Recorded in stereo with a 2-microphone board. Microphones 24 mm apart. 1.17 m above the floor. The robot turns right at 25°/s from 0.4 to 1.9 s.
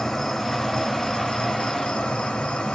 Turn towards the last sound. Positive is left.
turn(degrees=60)